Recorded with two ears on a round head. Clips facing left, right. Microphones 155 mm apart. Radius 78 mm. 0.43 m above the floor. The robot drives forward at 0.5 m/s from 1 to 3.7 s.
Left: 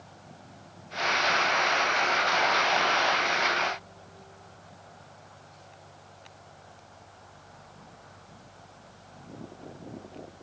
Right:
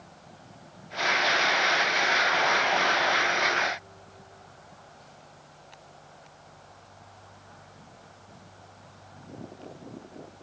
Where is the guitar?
No guitar in this recording.